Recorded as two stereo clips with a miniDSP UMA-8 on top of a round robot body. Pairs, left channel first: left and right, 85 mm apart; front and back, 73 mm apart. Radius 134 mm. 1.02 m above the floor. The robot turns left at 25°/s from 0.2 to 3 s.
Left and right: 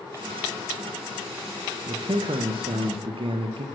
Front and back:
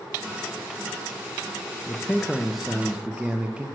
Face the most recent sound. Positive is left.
turn(degrees=-100)